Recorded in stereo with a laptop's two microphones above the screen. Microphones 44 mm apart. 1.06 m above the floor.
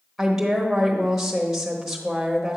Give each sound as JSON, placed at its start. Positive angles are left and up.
{"t": 0.2, "sound": "a woman speaking", "side_deg": -5, "distance_m": 1.1}